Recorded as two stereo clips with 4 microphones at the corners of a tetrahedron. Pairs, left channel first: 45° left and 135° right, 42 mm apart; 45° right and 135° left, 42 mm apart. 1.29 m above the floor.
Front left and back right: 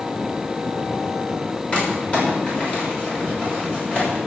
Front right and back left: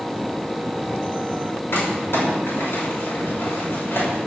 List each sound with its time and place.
1.7 s crumpling: 15° right, 6.5 m